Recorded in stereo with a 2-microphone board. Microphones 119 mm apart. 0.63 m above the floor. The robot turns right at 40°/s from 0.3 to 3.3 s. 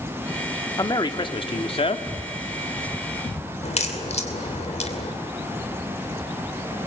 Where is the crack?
65° left (ahead or behind), 2.5 m.